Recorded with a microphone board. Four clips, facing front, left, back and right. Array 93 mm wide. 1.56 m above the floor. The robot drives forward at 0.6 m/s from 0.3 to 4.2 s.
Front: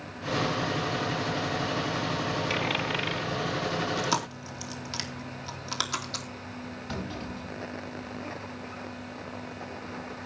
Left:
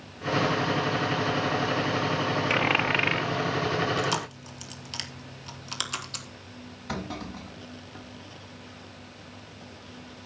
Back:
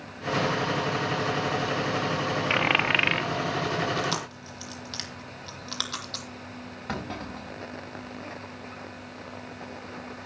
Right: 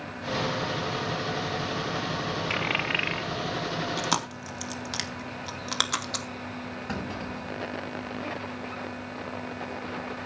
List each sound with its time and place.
2.5 s a dropped coin: 155° left, 1.1 m; by 3.3 s 165° left, 1.4 m
4.0 s chewing: 80° right, 3 m; by 6.3 s 85° right, 3 m
6.9 s a clunk: 155° right, 5.5 m